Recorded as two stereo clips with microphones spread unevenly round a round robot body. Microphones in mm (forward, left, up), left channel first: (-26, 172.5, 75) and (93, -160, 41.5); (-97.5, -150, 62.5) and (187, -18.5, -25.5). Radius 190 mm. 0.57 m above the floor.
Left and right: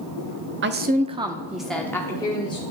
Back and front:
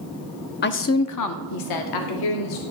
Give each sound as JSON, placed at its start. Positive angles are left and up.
{"t": 0.6, "sound": "a woman speaking", "azimuth_deg": -90, "distance_m": 0.7}